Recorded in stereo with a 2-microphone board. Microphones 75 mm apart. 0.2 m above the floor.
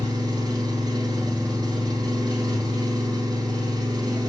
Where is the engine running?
75° right (ahead or behind), 0.8 m.